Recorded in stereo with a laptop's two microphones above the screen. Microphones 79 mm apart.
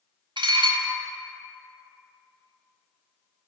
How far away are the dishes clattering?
About 0.8 m.